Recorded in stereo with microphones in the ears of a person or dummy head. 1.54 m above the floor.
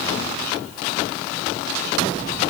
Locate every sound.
Only background noise.